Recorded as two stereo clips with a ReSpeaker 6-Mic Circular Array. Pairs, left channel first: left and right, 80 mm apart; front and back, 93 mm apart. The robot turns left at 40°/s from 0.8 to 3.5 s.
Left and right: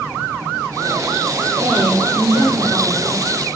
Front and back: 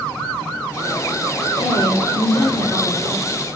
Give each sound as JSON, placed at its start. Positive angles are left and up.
{"t": 1.6, "sound": "a woman speaking", "azimuth_deg": -40, "distance_m": 5.5}